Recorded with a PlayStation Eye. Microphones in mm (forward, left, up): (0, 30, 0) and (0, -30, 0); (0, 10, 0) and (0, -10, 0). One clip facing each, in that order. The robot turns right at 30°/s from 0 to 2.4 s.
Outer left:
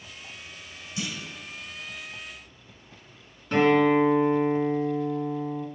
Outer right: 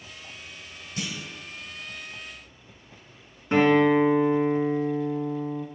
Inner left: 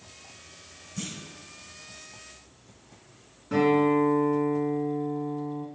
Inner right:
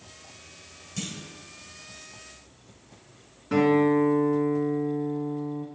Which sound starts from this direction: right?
A clunk, at 1.0 s.